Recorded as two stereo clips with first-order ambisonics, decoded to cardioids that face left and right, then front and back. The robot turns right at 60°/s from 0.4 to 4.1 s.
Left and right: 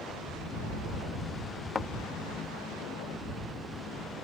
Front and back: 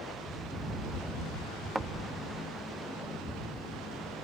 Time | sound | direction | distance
1.8 | a thud | 100° left | ?